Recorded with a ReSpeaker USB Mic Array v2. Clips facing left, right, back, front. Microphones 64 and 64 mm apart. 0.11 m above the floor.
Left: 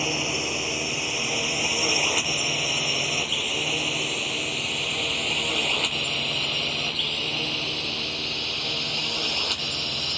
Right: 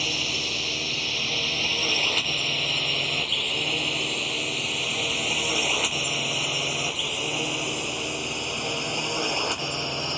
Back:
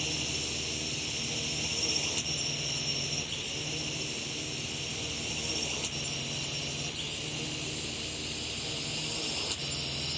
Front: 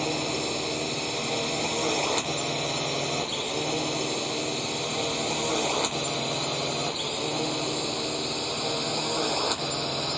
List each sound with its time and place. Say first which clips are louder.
0.0 s a drone: left 3 dB, front 9 dB; 25° left; by 10.2 s 25° right